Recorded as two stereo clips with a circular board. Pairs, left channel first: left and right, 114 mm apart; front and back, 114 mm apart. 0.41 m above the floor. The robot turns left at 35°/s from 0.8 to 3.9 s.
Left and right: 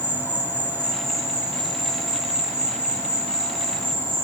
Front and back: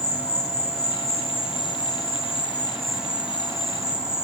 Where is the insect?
15° right, 1.2 m; by 4.2 s 125° right, 1.2 m.